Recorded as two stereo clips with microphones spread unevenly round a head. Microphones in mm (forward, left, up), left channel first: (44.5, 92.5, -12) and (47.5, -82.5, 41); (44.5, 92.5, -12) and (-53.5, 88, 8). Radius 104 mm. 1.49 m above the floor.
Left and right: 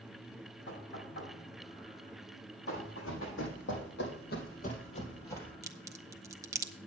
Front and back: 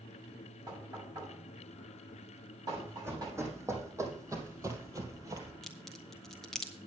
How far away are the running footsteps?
About 4.5 m.